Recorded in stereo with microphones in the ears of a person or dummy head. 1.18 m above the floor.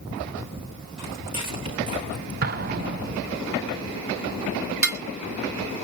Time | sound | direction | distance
1.0 | footsteps | 30° right (ahead or behind) | 2 m
2.4 | an explosion | 50° right (ahead or behind) | 0.8 m
4.8 | dishes clattering | 5° right (ahead or behind) | 1.6 m